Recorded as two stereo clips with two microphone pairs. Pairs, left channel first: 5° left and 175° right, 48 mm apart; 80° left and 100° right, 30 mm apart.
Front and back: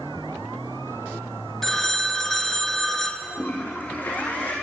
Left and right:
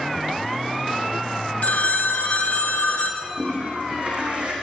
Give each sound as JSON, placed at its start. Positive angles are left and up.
{"t": 1.6, "sound": "a phone ringing", "azimuth_deg": 85, "distance_m": 1.5}
{"t": 3.2, "sound": "a toilet flushing", "azimuth_deg": -45, "distance_m": 3.5}